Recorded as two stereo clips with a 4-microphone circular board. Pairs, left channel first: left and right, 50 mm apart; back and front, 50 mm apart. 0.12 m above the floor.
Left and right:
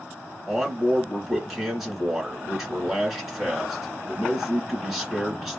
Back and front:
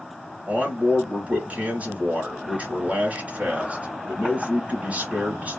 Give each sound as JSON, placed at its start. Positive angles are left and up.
{"t": 0.5, "sound": "a man speaking", "azimuth_deg": -5, "distance_m": 1.9}